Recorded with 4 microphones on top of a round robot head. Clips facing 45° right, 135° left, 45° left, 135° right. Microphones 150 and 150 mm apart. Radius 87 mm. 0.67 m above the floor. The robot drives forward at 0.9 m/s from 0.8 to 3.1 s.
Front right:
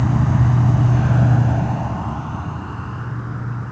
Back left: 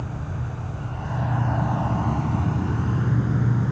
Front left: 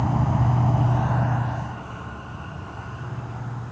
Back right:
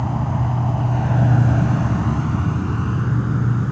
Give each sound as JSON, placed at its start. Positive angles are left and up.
{"t": 0.0, "sound": "an insect", "azimuth_deg": -45, "distance_m": 0.8}